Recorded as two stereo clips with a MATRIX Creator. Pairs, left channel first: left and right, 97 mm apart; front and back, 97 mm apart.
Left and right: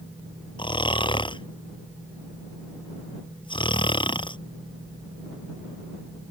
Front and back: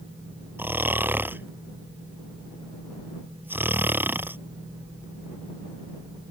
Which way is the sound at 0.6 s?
115° left.